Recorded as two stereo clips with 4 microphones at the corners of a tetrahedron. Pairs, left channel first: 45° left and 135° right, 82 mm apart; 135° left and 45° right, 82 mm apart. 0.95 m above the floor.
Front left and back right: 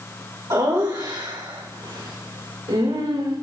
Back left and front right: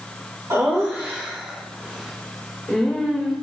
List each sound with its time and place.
0.5 s laughter: 100° right, 4 m; by 3.4 s 140° right, 4.5 m